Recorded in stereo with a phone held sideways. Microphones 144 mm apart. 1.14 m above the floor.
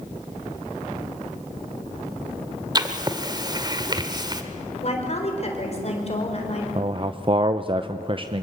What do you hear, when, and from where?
2.8 s writing: 30° right (ahead or behind), 1.5 m
4.8 s a woman speaking: 45° left (ahead or behind), 4.5 m
6.8 s a man speaking: 35° right (ahead or behind), 0.6 m